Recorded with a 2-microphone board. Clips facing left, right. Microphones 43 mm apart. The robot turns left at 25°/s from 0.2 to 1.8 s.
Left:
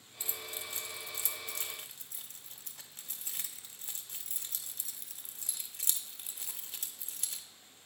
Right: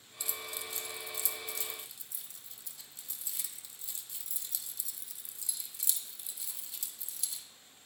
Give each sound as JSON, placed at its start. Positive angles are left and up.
{"t": 0.2, "sound": "keys jangling", "side_deg": 35, "distance_m": 0.6}